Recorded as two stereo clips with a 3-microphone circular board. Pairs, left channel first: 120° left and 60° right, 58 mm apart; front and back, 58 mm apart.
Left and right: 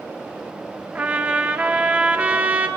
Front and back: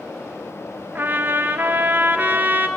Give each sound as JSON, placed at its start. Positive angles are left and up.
{"t": 0.9, "sound": "a trumpet", "azimuth_deg": -125, "distance_m": 1.6}